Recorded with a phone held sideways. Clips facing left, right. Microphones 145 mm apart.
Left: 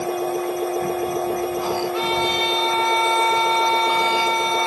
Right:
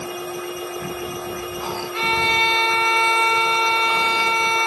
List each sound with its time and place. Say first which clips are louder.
0.0 s a machine running: left 7 dB; 45° left (ahead or behind), 1.1 m
1.9 s a violin: left 1 dB; centre (ahead or behind), 7 m